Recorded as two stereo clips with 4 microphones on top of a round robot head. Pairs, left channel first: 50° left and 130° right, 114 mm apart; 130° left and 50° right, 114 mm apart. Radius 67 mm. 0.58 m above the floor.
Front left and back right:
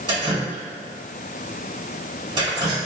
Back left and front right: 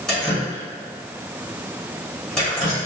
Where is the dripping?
145° right, 1.4 m.